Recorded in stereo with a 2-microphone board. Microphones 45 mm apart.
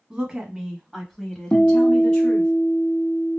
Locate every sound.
0.1 s a woman speaking: 20° right (ahead or behind), 1.7 m; by 2.5 s 35° left (ahead or behind), 1.8 m
1.5 s a guitar: 35° left (ahead or behind), 0.6 m